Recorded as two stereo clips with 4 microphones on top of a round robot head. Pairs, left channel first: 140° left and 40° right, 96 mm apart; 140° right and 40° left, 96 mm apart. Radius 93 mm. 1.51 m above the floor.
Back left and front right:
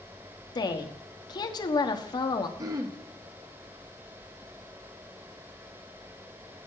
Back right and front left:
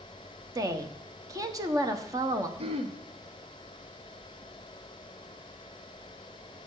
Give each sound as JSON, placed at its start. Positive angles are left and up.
{"t": 0.6, "sound": "a woman speaking", "azimuth_deg": 95, "distance_m": 1.3}
{"t": 2.6, "sound": "throat clearing", "azimuth_deg": 15, "distance_m": 1.1}